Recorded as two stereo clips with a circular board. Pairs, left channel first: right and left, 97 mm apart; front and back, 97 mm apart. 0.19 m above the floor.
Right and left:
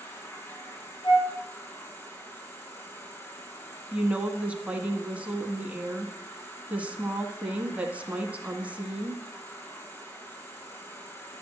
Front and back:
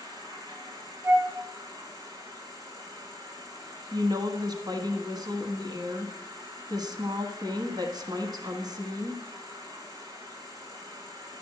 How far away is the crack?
I don't hear a crack.